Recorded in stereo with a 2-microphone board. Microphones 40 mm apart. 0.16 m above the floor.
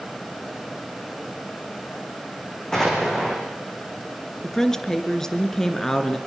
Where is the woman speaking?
10° left (ahead or behind), 2 m.